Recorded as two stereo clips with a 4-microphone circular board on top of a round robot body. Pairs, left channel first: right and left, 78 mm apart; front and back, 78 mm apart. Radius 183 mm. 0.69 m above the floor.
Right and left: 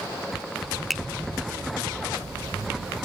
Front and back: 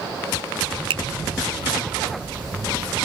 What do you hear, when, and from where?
0.9 s a finger snap: straight behind